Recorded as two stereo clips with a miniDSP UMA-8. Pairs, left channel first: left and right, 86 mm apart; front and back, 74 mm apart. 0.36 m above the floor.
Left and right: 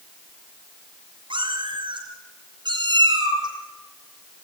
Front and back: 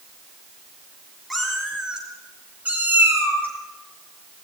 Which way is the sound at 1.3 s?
90° right.